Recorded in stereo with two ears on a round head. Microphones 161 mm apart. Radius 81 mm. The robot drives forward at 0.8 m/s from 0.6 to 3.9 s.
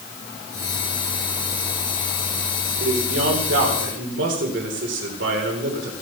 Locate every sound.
2.8 s a man speaking: 90° right, 3.5 m; by 5.9 s 75° right (ahead or behind), 3.5 m